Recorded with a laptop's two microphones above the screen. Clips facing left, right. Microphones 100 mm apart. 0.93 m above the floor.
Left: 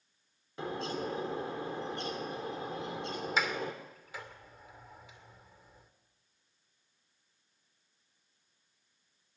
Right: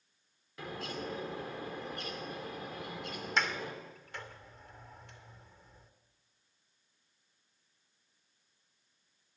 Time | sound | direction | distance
0.6 | a bird | 30° left (ahead or behind) | 2.5 m
3.4 | a sliding door | 5° left (ahead or behind) | 2.5 m